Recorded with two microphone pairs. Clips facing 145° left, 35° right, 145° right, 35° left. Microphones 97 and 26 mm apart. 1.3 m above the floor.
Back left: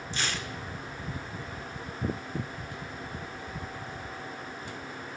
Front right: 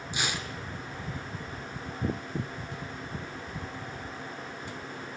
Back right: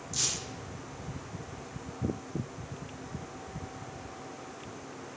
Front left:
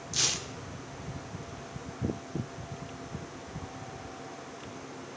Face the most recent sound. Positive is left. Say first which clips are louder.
# front right 1 dB, front left 4 dB
turn(degrees=25)